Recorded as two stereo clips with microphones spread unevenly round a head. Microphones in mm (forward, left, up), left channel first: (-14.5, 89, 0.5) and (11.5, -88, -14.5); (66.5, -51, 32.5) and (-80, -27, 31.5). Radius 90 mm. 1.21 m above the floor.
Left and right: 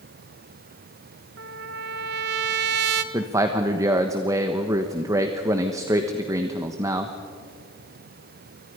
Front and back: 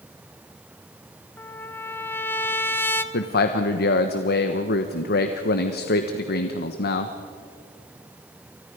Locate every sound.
1.4 s a trumpet: 80° right, 1.0 m
3.1 s a man speaking: 10° right, 1.2 m